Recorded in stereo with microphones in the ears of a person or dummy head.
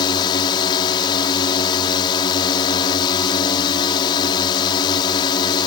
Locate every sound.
0.0 s a drone: 25° left (ahead or behind)